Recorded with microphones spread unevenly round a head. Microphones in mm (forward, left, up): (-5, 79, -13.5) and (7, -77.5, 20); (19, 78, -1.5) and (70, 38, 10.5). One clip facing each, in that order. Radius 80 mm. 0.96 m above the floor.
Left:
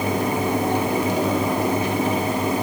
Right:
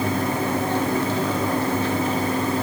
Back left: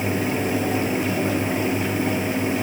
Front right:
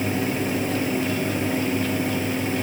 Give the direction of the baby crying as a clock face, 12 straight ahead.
No baby crying in this recording.